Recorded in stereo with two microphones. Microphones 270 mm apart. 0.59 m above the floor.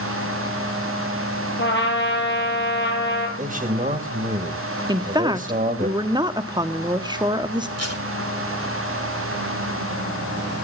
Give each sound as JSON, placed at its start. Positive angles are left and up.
{"t": 1.6, "sound": "a trumpet", "side_deg": 40, "distance_m": 4.5}
{"t": 3.4, "sound": "a man speaking", "side_deg": -30, "distance_m": 2.5}
{"t": 4.9, "sound": "a woman speaking", "side_deg": -15, "distance_m": 1.3}
{"t": 7.8, "sound": "tape being pulled", "side_deg": -65, "distance_m": 3.5}